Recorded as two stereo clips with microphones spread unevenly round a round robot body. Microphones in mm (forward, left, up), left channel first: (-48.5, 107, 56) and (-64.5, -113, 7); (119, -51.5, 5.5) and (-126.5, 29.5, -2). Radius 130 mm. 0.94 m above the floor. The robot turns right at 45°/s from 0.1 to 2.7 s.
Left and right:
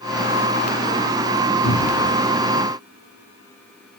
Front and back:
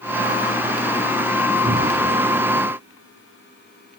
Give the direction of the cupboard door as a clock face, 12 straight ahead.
9 o'clock.